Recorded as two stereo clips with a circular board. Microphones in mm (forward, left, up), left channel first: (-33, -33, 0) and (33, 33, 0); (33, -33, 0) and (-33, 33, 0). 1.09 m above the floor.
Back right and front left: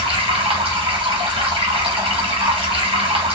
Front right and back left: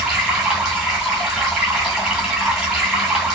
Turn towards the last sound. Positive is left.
turn(degrees=45)